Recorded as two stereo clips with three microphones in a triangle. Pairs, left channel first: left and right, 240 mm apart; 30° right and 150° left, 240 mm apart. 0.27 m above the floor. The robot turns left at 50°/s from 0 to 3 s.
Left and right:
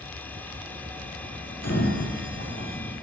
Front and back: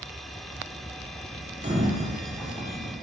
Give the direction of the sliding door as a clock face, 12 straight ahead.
9 o'clock.